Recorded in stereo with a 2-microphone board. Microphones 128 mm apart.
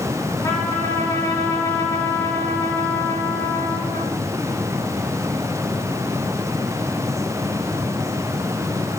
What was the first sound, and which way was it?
A trumpet, 30° left (ahead or behind).